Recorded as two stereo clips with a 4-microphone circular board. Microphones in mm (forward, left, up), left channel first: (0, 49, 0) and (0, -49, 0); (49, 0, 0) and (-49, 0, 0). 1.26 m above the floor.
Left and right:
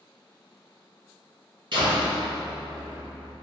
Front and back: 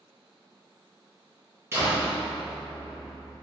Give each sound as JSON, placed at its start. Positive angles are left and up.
{"t": 1.7, "sound": "a door slam", "azimuth_deg": -120, "distance_m": 0.9}